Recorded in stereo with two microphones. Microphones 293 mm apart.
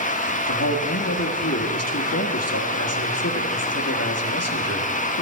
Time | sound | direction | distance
0.5 | a man speaking | 55° left (ahead or behind) | 1.2 m